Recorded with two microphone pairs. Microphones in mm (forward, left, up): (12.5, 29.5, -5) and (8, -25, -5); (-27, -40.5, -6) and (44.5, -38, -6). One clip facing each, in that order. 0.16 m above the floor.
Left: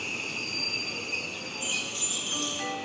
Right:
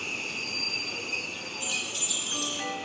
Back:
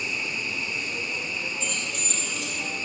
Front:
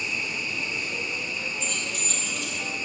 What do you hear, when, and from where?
1.6 s keys jangling: 85° right, 2.5 m